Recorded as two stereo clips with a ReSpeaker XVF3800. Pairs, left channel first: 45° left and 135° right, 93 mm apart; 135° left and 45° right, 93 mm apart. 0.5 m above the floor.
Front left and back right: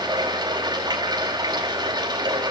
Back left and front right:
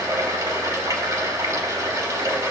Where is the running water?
100° right, 3 m.